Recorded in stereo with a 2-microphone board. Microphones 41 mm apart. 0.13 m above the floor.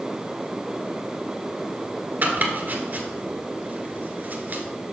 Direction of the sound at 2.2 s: 45° right (ahead or behind).